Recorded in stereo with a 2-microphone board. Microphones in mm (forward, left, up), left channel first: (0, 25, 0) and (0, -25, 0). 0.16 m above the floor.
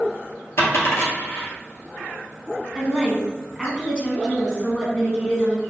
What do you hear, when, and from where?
0.6 s a dropped coin: 55° left (ahead or behind), 1.6 m
2.8 s a woman speaking: 20° left (ahead or behind), 1.4 m